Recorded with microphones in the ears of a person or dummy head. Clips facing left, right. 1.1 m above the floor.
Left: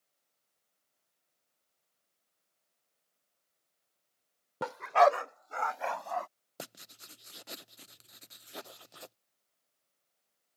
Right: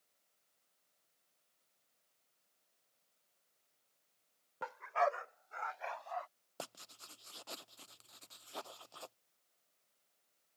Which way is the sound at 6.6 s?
20° left (ahead or behind).